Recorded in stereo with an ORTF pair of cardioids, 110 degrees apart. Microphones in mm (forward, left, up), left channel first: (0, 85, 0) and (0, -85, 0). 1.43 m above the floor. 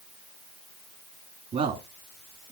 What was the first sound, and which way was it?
A man speaking, 40° right.